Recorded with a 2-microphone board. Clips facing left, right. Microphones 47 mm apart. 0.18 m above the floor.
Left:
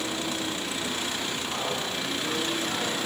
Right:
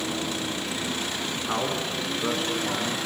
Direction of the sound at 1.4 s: 50° right (ahead or behind).